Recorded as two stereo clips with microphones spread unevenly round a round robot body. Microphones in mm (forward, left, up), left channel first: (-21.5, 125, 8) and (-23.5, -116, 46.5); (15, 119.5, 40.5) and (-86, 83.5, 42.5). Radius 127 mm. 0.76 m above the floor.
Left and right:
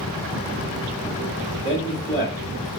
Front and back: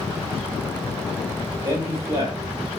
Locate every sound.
1.6 s a man speaking: 145° left, 1.4 m